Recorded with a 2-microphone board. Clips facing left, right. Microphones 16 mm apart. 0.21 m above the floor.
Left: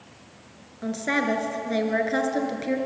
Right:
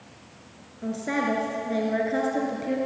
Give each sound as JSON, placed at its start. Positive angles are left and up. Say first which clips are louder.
{"t": 0.8, "sound": "a woman speaking", "louder": "left 2 dB", "side_deg": 45, "distance_m": 4.0}